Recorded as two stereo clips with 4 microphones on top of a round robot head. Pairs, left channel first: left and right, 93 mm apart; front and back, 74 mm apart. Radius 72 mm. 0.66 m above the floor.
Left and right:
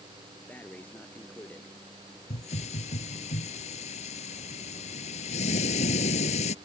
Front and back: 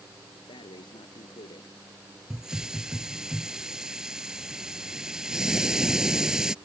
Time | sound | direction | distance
0.5 | breathing | 15° left | ?
2.3 | a hiss | 100° left | ?